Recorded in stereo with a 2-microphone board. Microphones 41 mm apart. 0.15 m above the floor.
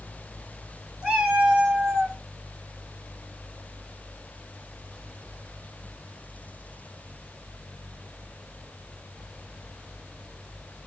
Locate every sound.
1.0 s a cat meowing: 20° right (ahead or behind), 1.2 m; by 2.2 s 15° right (ahead or behind), 0.8 m